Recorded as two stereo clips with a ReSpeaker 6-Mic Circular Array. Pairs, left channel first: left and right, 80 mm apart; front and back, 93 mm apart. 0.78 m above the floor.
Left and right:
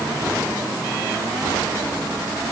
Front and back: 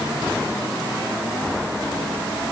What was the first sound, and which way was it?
Only background noise.